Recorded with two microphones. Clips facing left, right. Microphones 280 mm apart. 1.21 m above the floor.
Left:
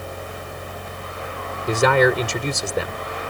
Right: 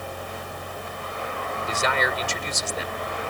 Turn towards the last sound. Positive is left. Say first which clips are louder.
# left 12 dB
turn(degrees=65)  # may be behind; listen again after turning